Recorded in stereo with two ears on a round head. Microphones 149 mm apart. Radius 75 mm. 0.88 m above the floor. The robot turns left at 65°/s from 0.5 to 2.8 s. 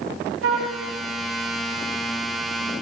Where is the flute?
75° right (ahead or behind), 1.8 m; by 0.8 s 70° right (ahead or behind), 1.8 m.